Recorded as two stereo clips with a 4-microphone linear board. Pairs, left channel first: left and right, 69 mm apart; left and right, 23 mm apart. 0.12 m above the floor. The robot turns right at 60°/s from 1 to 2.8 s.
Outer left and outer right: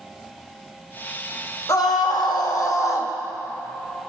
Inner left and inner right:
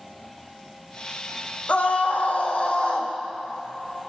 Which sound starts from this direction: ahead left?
A scream, at 1.7 s.